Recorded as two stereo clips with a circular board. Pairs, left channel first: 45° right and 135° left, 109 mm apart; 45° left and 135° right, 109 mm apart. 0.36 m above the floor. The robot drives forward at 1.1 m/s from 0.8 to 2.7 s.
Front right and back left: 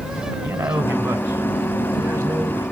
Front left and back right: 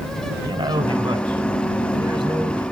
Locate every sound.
0.4 s a man speaking: 155° right, 3 m; by 2.6 s 165° right, 5 m